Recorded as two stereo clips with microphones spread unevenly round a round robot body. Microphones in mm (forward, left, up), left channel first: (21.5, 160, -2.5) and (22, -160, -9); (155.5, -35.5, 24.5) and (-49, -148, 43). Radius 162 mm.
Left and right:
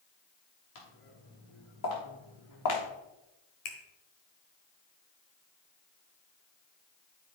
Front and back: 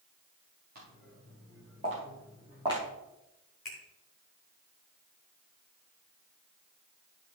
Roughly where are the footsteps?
Behind left.